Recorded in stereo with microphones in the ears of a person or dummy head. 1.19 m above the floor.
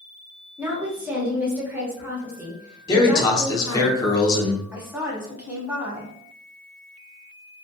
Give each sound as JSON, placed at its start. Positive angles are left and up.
{"t": 0.6, "sound": "a woman speaking", "side_deg": -10, "distance_m": 0.9}
{"t": 2.9, "sound": "a man speaking", "side_deg": 20, "distance_m": 0.7}
{"t": 4.7, "sound": "a woman speaking", "side_deg": -15, "distance_m": 0.8}